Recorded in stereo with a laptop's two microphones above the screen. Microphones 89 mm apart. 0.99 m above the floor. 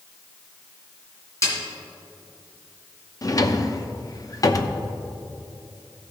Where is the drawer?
45° left (ahead or behind), 0.7 m.